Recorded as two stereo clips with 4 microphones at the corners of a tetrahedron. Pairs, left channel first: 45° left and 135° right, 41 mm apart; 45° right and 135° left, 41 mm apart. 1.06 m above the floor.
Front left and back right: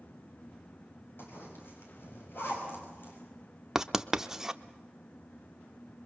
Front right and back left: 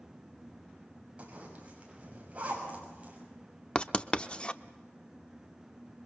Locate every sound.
1.2 s a zipper: 75° left, 6.5 m
3.8 s writing: 70° right, 0.7 m